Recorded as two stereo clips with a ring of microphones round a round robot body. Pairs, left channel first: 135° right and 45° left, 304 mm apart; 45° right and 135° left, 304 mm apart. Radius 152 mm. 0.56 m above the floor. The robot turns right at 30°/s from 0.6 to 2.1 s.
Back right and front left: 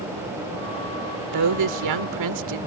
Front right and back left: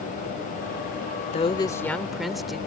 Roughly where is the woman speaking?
Ahead left.